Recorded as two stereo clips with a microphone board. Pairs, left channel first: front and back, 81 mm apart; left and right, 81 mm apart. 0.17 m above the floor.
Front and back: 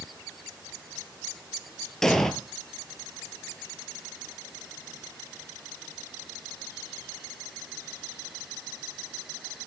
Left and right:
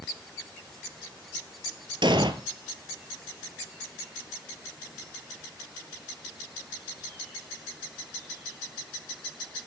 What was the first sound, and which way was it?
An explosion, 85° right.